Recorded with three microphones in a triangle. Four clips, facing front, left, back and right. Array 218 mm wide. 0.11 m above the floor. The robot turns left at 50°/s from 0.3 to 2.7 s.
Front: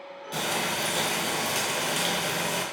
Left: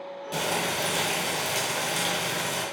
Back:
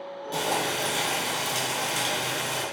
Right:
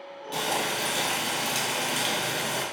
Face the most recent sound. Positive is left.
turn(degrees=-30)